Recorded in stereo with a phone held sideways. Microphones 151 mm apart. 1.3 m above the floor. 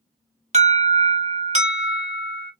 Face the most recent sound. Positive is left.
turn(degrees=-50)  # may be behind; listen again after turning